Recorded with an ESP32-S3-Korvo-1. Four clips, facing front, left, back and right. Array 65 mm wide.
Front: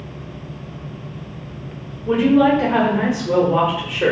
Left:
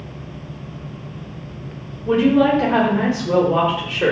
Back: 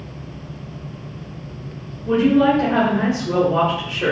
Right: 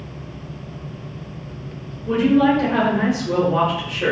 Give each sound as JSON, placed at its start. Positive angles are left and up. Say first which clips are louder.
{"t": 2.0, "sound": "a woman speaking", "louder": "left 1 dB, front 1 dB", "azimuth_deg": 65, "distance_m": 0.9}